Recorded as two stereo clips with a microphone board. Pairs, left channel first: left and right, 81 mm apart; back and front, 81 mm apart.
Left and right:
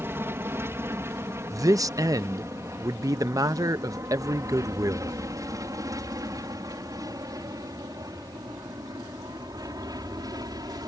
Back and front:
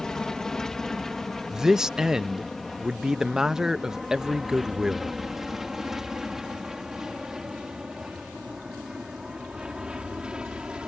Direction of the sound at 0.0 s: 105° right.